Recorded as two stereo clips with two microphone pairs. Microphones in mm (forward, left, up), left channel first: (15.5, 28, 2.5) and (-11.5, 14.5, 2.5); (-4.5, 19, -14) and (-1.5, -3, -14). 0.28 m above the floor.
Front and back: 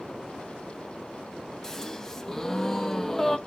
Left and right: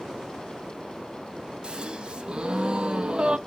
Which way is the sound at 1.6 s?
45° right.